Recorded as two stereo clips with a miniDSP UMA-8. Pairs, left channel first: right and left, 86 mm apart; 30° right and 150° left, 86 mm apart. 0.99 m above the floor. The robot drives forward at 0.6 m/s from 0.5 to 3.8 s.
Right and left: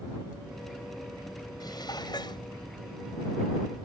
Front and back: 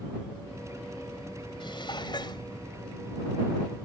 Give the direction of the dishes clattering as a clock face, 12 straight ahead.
2 o'clock.